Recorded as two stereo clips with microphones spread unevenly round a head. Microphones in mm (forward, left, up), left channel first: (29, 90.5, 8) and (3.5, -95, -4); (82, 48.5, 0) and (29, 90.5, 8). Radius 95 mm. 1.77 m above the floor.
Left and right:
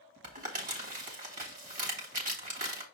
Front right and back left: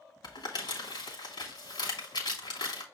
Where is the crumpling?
50° right, 3 m.